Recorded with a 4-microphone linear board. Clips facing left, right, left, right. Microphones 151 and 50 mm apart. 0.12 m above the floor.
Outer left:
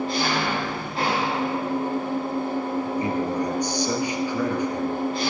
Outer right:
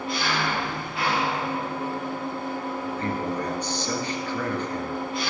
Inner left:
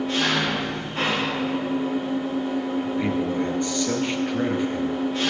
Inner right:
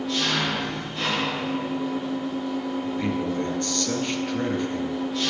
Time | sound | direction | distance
0.0 | an engine running | 35° left (ahead or behind) | 5 m
2.9 | a man speaking | 15° left (ahead or behind) | 1.9 m